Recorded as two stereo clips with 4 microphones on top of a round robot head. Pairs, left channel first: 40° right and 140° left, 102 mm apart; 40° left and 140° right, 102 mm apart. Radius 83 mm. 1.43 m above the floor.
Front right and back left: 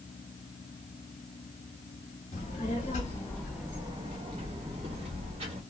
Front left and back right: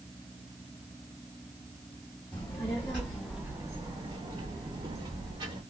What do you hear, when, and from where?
2.3 s a child speaking: 20° right, 1.0 m; by 5.6 s 170° left, 1.6 m